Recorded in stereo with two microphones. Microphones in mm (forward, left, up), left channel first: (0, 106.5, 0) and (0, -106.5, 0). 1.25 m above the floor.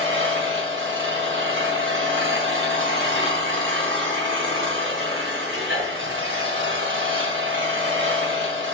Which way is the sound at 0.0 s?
70° right (ahead or behind).